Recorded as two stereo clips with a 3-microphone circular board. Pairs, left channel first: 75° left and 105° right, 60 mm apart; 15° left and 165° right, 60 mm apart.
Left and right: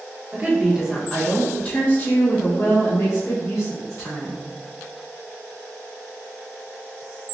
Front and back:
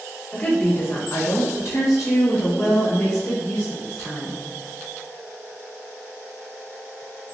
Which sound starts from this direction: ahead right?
A woman speaking, at 0.3 s.